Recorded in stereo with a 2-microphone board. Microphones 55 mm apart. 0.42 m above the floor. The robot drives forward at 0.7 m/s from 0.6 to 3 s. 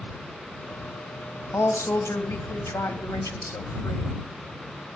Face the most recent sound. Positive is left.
turn(degrees=65)  # may be behind; listen again after turning